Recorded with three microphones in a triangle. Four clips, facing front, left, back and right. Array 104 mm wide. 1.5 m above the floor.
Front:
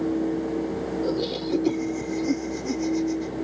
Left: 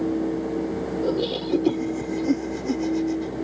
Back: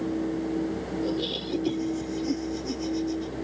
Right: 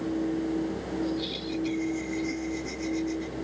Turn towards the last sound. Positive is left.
turn(degrees=70)